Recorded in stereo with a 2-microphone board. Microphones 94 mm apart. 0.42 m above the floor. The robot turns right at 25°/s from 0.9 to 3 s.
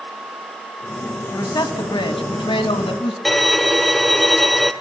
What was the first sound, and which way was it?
A man speaking, 50° left.